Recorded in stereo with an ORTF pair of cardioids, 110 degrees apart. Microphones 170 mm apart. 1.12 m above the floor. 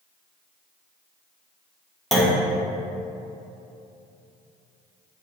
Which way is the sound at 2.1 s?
Straight ahead.